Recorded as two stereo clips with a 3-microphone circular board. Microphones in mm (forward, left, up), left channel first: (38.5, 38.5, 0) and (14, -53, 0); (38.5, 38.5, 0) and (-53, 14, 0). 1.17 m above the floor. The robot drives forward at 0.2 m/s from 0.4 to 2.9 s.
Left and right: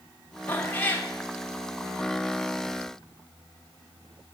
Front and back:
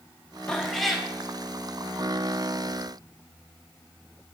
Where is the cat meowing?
80° left, 0.7 m; by 1.1 s 110° left, 0.7 m.